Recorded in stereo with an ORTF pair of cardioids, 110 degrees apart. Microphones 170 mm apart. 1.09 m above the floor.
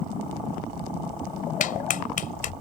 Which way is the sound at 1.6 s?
50° left.